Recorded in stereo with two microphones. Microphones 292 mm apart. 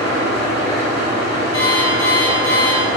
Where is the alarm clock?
70° right (ahead or behind), 0.8 m.